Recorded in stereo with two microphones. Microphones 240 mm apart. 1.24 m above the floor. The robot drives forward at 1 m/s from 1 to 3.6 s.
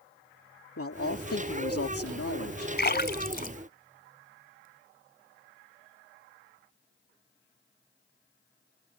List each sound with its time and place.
0.8 s a man speaking: 70° left (ahead or behind)
2.8 s a splash: 45° left (ahead or behind); by 4.7 s 35° left (ahead or behind)